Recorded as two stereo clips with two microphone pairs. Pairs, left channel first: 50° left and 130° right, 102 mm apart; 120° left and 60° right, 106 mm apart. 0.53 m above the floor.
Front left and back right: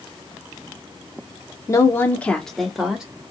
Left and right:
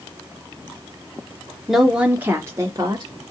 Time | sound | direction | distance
1.7 | a woman speaking | 25° left | 0.8 m